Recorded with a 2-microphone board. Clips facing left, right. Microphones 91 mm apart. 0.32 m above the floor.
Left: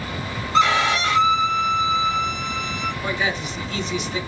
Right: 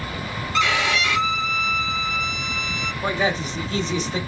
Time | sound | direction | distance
0.5 | a violin | 35° left (ahead or behind) | 1.2 m
3.0 | a man speaking | 35° right (ahead or behind) | 1.2 m